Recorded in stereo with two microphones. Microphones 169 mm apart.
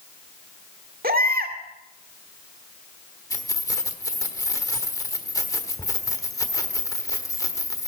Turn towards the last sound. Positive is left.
turn(degrees=20)  # may be behind; listen again after turning